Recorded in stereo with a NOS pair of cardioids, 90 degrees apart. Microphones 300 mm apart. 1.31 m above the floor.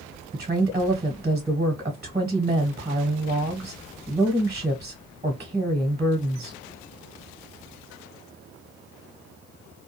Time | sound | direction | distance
0.3 | a woman speaking | 25° right | 1.1 m